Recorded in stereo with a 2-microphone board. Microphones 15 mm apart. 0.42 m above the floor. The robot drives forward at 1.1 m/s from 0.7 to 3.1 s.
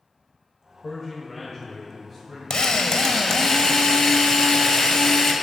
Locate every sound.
0.8 s a man speaking: 10° left (ahead or behind), 1.3 m; by 3.5 s 5° left (ahead or behind), 3.5 m
2.5 s a drill: 65° left (ahead or behind), 0.9 m; by 5.3 s 50° left (ahead or behind), 1.1 m